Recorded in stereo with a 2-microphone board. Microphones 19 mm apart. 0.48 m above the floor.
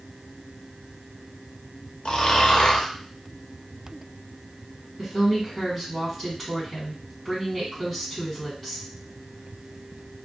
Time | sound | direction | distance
2.0 | snoring | 60° left (ahead or behind) | 0.6 m
5.0 | a woman speaking | 5° right (ahead or behind) | 1.3 m